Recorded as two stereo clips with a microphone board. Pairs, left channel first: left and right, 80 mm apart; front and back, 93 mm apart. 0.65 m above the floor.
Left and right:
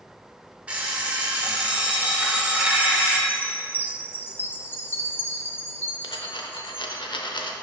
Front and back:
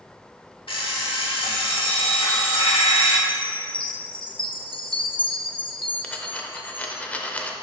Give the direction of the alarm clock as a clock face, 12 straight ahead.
1 o'clock.